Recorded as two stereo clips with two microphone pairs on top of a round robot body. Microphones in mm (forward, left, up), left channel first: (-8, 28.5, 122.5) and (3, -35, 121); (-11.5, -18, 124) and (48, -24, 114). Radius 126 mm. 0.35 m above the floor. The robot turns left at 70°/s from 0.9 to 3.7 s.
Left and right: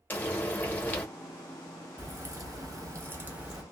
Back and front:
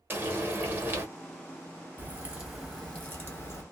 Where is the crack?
45° right, 1.8 m; by 3.6 s 160° right, 1.8 m.